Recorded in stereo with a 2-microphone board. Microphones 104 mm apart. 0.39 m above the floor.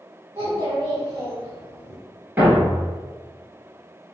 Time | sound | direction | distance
0.3 | a child speaking | 30° right (ahead or behind) | 1.1 m
2.4 | a thud | 15° right (ahead or behind) | 1.2 m